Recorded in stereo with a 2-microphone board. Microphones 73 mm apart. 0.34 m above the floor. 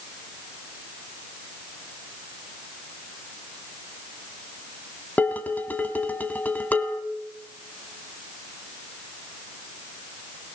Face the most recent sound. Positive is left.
turn(degrees=25)  # may be behind; listen again after turning